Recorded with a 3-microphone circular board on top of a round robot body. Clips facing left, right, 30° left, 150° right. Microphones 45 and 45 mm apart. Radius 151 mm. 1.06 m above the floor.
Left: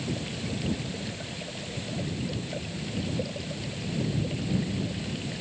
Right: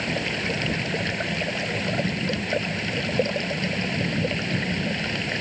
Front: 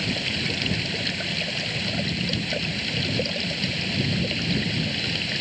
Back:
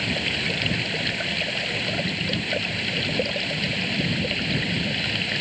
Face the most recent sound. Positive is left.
turn(degrees=-75)